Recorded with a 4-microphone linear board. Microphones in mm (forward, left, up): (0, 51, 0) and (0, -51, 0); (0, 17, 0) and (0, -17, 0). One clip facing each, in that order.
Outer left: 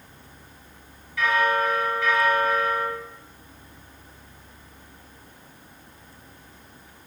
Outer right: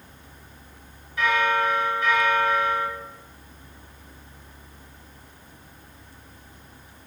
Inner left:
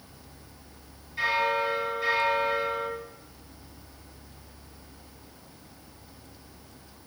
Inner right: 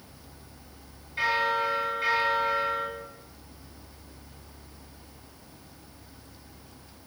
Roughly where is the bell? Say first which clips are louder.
Even, even; right.